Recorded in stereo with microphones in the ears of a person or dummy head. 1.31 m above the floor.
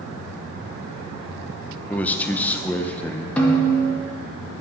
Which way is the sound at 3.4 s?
10° left (ahead or behind).